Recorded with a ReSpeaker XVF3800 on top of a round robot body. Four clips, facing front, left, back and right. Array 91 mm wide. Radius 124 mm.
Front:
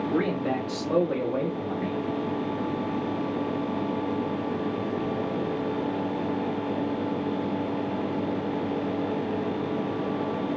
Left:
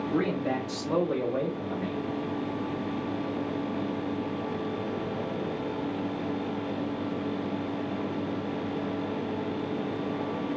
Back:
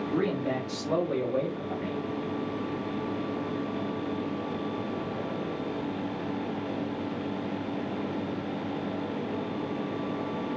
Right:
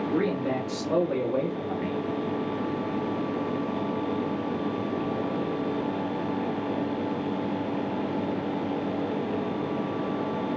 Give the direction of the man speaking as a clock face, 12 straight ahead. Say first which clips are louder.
Right 1 dB, front 1 dB; 12 o'clock.